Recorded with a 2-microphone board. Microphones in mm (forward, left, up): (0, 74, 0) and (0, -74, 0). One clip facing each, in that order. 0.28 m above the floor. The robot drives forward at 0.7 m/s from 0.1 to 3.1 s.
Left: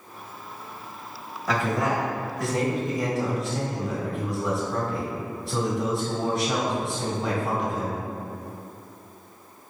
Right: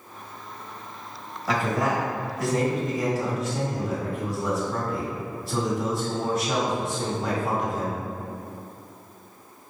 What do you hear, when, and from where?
1.5 s a man speaking: centre (ahead or behind), 1.2 m